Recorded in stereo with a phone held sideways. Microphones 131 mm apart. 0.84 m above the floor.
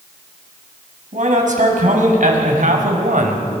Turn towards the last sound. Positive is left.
turn(degrees=-75)  # may be behind; listen again after turning